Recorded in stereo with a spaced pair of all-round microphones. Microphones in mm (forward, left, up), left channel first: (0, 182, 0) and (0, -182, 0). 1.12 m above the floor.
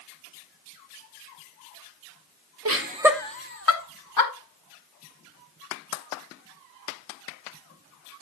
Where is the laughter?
45° right (ahead or behind), 0.8 m; by 4.3 s 55° left (ahead or behind), 1.7 m.